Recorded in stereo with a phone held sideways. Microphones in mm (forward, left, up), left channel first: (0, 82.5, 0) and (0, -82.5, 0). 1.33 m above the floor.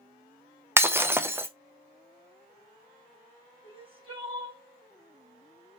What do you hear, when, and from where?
0.8 s breaking glass: 15° right (ahead or behind), 0.5 m
3.6 s crying: 30° right (ahead or behind), 1.8 m